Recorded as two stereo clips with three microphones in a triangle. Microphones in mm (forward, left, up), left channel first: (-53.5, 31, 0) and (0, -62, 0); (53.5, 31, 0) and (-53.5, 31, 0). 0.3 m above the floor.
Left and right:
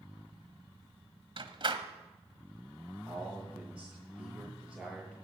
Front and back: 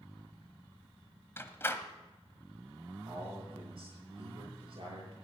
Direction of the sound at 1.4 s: 60° right.